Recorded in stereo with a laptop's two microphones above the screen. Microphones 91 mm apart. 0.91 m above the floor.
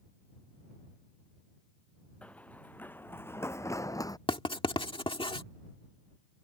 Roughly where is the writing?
Left.